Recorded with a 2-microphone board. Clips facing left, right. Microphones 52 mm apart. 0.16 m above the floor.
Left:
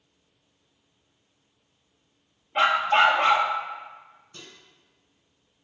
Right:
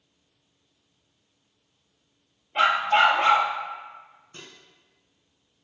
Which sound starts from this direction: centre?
A dog barking, at 2.5 s.